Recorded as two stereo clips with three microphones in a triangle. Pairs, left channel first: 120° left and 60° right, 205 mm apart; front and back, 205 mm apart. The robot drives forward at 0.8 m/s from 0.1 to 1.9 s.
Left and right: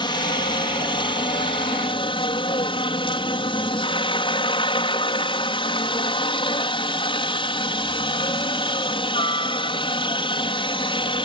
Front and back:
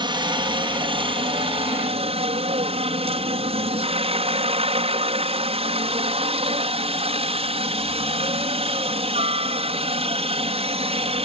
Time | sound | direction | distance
0.0 | a helicopter | 150° left | ?